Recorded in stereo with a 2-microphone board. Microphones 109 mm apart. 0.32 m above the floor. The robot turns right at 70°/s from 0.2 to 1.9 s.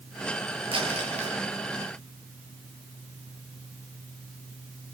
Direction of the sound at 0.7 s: 125° right.